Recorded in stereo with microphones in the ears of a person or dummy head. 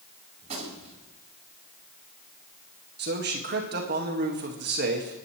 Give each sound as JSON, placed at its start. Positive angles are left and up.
{"t": 0.4, "sound": "a gunshot", "side_deg": -35, "distance_m": 4.5}
{"t": 3.0, "sound": "a man speaking", "side_deg": -55, "distance_m": 1.8}